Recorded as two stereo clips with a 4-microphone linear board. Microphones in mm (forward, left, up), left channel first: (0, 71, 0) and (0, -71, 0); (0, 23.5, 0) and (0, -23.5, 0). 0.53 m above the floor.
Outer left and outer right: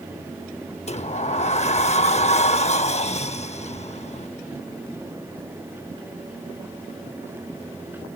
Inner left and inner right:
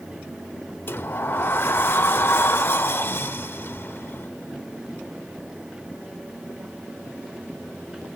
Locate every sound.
0.9 s a sliding door: 50° left (ahead or behind)